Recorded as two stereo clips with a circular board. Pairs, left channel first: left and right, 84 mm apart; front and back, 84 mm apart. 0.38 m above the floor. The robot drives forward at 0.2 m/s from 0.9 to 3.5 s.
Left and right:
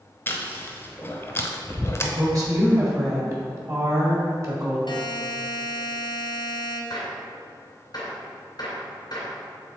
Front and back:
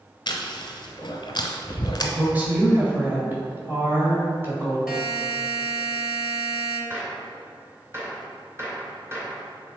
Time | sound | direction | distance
0.3 | chewing | 30° left | 0.9 m
2.0 | a woman speaking | 115° right | 1.7 m
4.9 | a buzzer | 100° left | 1.1 m
6.9 | a gunshot | 125° left | 2 m